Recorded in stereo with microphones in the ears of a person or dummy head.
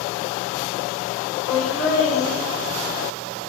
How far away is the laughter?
About 4 m.